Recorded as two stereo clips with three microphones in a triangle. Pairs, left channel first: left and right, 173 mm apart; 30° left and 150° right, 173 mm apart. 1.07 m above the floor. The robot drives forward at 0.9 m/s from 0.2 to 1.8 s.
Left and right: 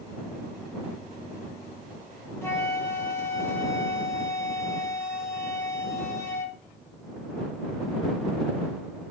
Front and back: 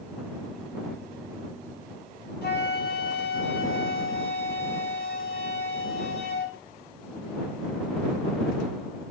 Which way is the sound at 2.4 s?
15° left.